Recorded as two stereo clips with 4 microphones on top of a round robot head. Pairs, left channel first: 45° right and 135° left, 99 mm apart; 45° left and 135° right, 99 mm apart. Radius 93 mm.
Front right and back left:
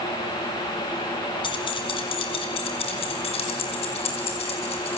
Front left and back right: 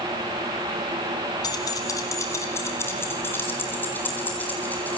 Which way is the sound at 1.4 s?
5° right.